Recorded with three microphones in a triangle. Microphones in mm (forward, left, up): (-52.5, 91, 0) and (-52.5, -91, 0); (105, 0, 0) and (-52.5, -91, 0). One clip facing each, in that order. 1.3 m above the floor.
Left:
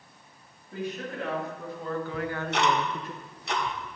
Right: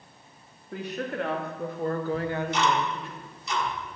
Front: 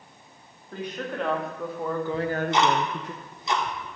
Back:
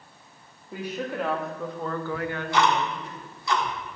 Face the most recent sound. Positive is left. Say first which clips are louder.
# right 2 dB, front 1 dB
turn(degrees=95)